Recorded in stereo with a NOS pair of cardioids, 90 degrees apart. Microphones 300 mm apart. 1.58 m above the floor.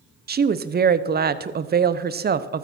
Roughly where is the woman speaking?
Ahead right.